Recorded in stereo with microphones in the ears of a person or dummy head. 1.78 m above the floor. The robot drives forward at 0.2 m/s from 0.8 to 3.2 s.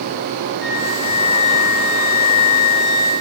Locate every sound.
0.6 s a flute: 65° left (ahead or behind), 0.7 m; by 3.1 s 70° left (ahead or behind), 0.7 m